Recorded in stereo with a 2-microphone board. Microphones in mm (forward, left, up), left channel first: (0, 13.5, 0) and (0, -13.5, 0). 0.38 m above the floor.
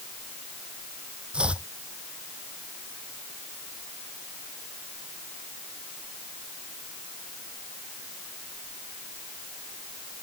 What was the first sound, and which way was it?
Chopping, 40° right (ahead or behind).